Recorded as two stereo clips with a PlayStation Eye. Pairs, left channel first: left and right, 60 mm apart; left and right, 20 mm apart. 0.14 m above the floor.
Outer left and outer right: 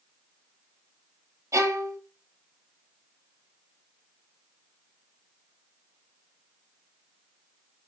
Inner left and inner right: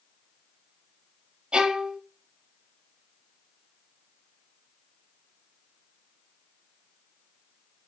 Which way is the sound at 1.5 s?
55° right (ahead or behind).